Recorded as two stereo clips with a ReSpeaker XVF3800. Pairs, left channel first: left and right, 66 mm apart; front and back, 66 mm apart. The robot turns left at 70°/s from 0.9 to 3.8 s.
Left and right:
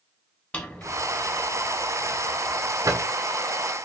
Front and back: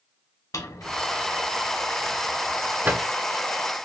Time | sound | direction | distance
0.5 | a drawer | 20° left | 0.9 m